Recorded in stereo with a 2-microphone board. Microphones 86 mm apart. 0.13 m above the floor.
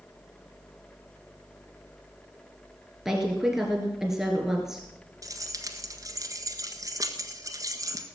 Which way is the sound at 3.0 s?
5° right (ahead or behind).